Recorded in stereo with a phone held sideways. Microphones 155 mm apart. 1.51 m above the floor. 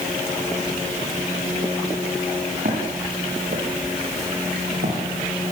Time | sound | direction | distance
2.6 | footsteps | 60° right (ahead or behind) | 6 m